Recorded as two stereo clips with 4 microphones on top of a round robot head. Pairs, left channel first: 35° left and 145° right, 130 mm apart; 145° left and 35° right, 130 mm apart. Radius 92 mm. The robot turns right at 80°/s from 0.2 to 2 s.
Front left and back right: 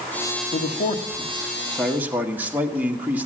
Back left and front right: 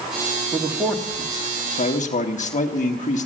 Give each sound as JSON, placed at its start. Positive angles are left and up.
{"t": 0.5, "sound": "a man speaking", "azimuth_deg": 20, "distance_m": 1.3}